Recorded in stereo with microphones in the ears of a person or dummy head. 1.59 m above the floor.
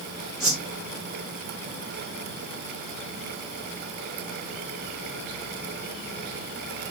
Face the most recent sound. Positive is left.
turn(degrees=0)  # may be behind; listen again after turning